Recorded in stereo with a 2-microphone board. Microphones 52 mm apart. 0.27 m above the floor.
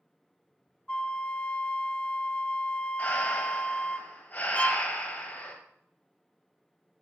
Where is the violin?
25° left (ahead or behind), 0.7 m.